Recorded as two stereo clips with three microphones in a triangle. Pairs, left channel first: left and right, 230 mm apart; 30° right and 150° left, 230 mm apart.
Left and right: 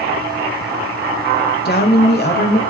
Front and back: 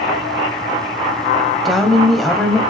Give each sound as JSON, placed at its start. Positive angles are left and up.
{"t": 1.6, "sound": "a woman speaking", "azimuth_deg": 60, "distance_m": 1.4}